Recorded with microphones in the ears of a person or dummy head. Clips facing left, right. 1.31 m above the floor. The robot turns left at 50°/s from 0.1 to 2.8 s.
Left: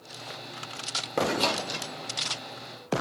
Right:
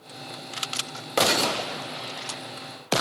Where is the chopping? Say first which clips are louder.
Right 1 dB; centre (ahead or behind), 0.9 m; by 1.7 s 10° right (ahead or behind), 0.9 m.